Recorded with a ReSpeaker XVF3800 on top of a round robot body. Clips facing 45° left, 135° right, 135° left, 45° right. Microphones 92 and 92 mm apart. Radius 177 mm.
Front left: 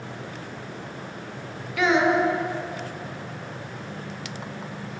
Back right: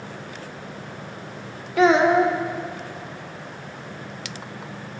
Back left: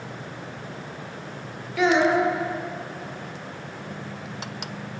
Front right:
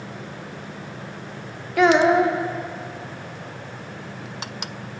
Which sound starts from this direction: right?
A child speaking, at 1.8 s.